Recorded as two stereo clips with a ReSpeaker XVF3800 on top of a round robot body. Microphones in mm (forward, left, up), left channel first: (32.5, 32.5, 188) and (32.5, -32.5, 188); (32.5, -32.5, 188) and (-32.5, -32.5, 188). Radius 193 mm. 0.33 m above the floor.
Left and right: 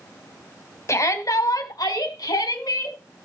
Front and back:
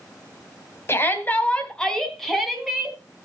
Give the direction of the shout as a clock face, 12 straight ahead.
10 o'clock.